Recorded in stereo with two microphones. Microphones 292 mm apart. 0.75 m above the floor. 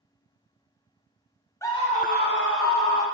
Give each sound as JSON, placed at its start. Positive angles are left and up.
{"t": 1.6, "sound": "a scream", "side_deg": 10, "distance_m": 1.7}